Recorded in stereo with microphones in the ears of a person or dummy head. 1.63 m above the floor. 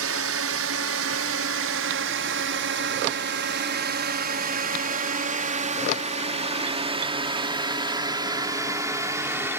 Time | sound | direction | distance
0.0 | a drone | 75° right (ahead or behind) | ?